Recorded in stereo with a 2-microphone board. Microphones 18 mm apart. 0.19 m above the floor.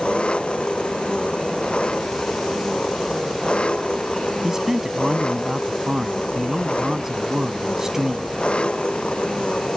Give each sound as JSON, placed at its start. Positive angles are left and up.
{"t": 0.0, "sound": "an engine running", "side_deg": 80}
{"t": 4.4, "sound": "a man speaking", "side_deg": -25}